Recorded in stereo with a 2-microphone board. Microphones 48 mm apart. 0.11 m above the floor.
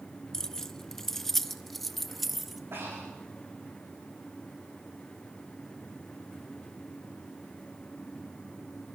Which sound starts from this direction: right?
Breathing, at 2.7 s.